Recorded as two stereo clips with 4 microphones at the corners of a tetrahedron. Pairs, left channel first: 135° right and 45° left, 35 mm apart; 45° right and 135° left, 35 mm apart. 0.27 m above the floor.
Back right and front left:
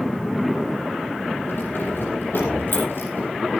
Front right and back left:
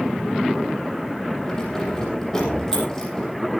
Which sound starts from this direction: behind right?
Keys jangling, at 1.5 s.